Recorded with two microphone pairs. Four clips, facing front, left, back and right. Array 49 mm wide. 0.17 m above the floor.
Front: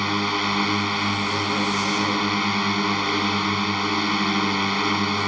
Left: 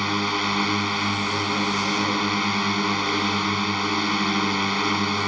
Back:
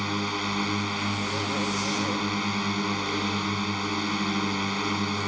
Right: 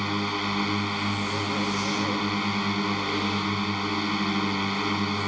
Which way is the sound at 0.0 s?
35° left.